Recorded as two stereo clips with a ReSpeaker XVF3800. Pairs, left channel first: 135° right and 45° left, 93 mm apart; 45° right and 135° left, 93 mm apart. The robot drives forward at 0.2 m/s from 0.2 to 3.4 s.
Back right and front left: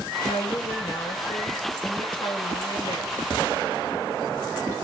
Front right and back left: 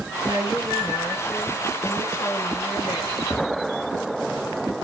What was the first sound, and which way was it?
A woman speaking, 100° right.